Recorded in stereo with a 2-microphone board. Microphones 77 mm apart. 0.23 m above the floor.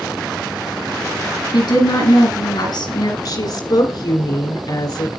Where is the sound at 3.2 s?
65° left (ahead or behind), 3 m.